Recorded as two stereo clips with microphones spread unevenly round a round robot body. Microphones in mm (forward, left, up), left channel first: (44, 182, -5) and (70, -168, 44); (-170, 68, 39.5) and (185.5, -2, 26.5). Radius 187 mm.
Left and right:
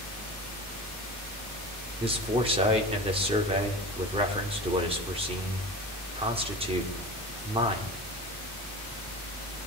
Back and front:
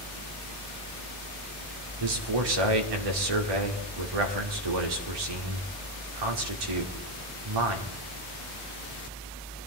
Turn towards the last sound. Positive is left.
turn(degrees=-10)